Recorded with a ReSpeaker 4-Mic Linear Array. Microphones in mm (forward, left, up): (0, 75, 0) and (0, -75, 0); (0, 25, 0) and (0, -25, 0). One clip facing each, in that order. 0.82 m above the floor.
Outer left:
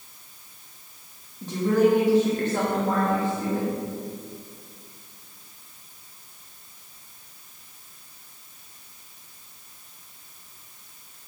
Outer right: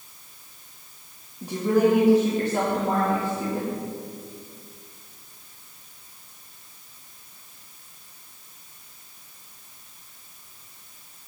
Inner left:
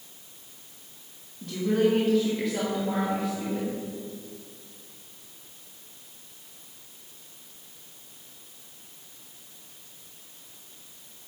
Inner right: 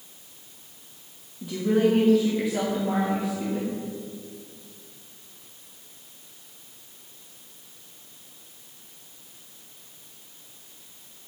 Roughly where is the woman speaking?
Centre.